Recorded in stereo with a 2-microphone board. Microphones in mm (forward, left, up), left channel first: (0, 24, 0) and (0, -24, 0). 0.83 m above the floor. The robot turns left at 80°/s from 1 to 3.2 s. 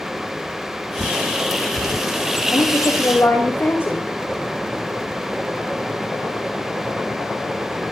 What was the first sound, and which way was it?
A bird, 45° right (ahead or behind).